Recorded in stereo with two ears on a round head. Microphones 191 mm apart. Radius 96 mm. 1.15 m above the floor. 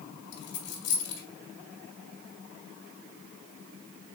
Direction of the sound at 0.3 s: 60° left (ahead or behind).